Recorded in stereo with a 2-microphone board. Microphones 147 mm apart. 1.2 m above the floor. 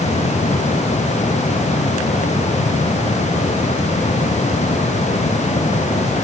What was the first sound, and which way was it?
Only background noise.